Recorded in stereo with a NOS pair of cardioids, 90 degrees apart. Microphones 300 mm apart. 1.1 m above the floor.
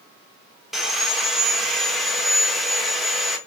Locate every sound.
0.7 s sawing: straight ahead, 1.1 m